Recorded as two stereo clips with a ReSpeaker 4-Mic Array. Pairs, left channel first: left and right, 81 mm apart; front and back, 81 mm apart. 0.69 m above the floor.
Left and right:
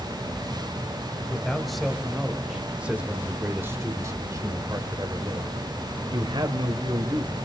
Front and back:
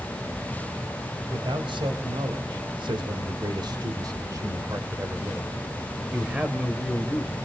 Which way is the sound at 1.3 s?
175° left.